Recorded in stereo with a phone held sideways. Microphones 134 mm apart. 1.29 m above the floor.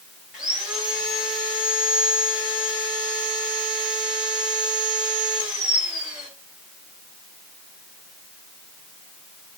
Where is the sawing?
5° right (ahead or behind), 4 m.